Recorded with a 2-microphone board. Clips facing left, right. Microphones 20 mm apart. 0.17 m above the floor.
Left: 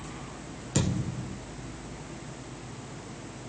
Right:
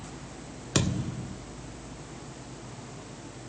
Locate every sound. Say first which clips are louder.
0.8 s a thud: right 1 dB; 35° right (ahead or behind), 0.9 m